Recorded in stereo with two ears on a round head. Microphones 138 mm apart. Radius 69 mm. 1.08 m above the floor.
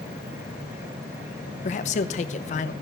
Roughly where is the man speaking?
Left.